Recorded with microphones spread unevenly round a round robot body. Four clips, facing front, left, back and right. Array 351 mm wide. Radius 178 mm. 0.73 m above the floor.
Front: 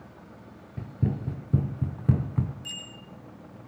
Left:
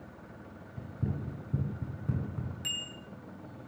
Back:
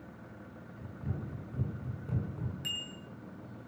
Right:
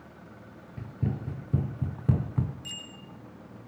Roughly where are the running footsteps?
Ahead.